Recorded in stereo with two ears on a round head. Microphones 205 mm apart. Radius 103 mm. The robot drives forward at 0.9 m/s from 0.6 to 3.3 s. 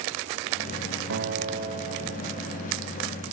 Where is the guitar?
55° right (ahead or behind), 1.1 m; by 2.8 s 20° right (ahead or behind), 2.5 m.